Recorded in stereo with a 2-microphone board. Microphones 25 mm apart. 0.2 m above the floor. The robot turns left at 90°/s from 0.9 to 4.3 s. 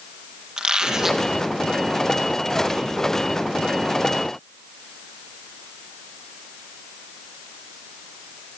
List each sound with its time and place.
0.6 s a squeak: 150° right, 3.5 m; by 1.3 s straight behind, 3.5 m